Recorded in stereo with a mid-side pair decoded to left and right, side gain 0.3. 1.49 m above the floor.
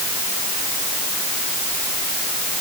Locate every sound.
Only background noise.